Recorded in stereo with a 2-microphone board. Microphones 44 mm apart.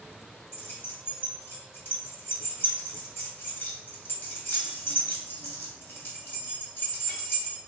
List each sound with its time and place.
0.5 s keys jangling: 60° left (ahead or behind), 1.9 m